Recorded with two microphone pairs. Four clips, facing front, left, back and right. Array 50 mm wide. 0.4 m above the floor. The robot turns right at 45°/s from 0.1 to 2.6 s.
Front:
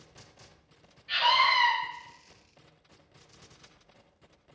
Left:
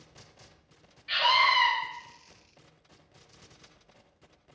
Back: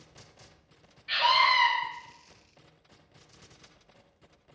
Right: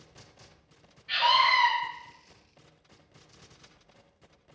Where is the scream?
130° left, 1.8 m; by 1.7 s 160° left, 1.8 m.